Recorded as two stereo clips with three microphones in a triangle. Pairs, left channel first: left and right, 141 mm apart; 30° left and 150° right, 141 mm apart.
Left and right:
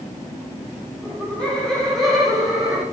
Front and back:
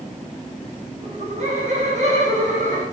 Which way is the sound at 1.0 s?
170° left.